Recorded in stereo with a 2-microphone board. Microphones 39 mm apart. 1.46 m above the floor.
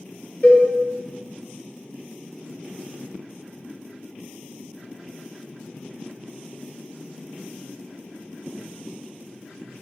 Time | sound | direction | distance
0.4 | a cowbell | 30° left (ahead or behind) | 0.5 m